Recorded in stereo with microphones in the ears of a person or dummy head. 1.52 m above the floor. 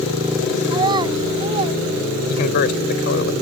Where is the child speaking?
25° right (ahead or behind); by 1.8 s 35° right (ahead or behind).